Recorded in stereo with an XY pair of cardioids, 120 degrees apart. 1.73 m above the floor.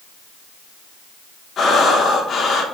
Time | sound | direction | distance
1.6 | breathing | 45° left | 0.8 m